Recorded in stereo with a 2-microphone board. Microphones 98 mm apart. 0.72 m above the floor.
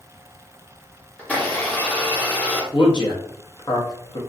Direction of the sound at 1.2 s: 15° left (ahead or behind).